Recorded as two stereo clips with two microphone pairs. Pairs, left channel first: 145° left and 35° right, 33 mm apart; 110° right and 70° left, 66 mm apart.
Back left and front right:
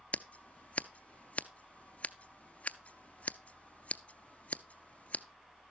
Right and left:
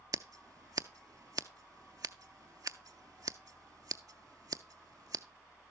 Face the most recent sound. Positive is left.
turn(degrees=95)